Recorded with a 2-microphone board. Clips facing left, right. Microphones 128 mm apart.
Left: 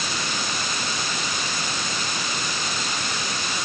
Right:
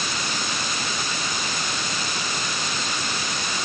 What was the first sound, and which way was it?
Only background noise.